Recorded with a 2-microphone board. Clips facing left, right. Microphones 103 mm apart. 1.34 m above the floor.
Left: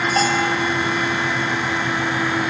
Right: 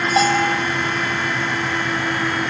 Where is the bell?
15° right (ahead or behind), 3.5 m.